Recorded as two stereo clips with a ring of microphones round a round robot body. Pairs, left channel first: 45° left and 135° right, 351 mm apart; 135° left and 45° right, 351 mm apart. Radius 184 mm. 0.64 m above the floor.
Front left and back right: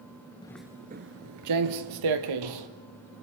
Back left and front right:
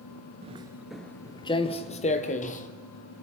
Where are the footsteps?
10° right, 0.6 m; by 2.7 s 155° right, 1.6 m.